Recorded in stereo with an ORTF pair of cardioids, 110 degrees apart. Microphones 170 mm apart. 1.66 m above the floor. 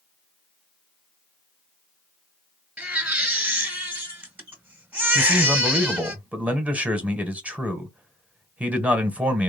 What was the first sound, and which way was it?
A baby crying, 10° right.